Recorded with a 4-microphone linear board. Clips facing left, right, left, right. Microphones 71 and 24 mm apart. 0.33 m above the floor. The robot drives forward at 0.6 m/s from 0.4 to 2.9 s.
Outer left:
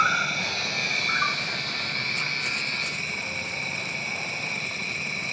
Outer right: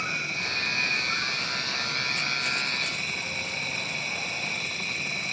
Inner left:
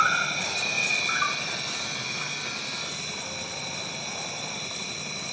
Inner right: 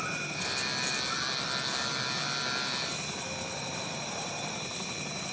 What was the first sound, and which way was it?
An insect, 65° left (ahead or behind).